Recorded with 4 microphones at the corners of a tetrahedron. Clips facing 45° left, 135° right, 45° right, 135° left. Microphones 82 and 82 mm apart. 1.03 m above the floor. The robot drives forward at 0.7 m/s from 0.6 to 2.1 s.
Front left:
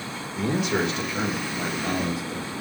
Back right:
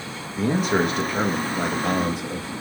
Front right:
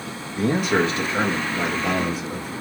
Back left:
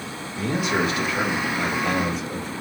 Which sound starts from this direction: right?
A man speaking, at 0.3 s.